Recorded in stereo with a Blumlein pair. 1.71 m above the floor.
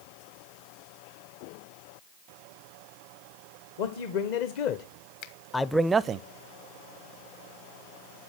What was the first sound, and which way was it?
A man speaking, 55° left.